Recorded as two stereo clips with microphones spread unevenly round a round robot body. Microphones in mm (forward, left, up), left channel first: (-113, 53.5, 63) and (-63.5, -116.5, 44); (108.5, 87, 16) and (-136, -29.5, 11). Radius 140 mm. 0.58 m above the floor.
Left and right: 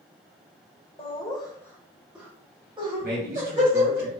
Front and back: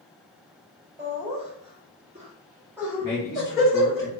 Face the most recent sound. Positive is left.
turn(degrees=-50)